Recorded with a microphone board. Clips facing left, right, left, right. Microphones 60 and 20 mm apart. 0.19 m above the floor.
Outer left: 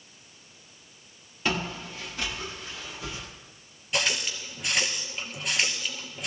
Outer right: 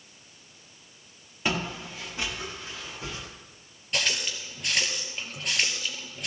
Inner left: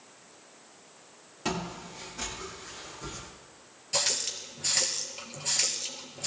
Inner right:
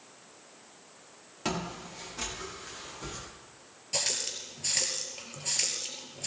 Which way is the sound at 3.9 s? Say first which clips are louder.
Outer left 1 dB, inner left 2 dB; 5° left (ahead or behind).